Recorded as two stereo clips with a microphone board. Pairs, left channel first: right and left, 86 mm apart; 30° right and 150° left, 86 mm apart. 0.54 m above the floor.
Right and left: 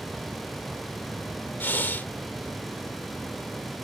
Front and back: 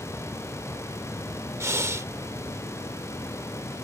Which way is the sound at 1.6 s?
155° right.